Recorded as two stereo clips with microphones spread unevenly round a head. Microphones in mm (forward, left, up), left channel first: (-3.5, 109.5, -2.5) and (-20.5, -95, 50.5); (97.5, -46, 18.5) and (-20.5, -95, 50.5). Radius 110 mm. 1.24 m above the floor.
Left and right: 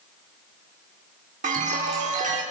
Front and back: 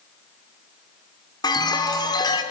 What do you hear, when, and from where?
1.4 s a chime: 35° right, 4 m